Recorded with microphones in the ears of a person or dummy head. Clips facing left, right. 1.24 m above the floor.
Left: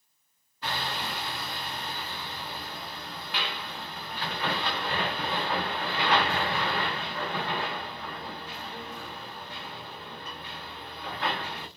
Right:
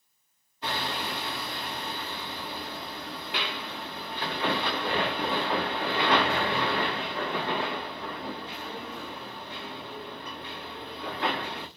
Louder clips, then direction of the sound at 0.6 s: Right 2 dB; 25° right (ahead or behind).